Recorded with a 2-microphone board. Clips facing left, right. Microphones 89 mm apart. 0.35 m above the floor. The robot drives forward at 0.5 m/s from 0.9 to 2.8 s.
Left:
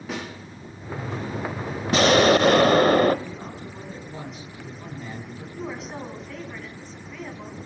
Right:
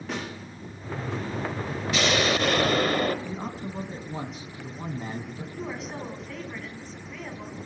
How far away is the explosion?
About 0.8 m.